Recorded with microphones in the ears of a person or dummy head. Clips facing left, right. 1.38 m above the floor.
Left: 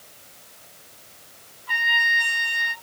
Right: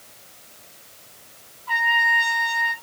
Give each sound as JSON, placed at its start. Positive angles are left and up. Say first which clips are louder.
{"t": 1.7, "sound": "a trumpet", "louder": "right 6 dB", "side_deg": 15, "distance_m": 1.3}